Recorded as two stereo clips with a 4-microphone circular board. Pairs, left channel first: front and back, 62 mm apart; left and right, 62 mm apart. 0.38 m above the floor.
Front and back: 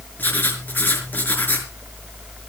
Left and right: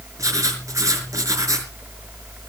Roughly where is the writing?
Ahead right.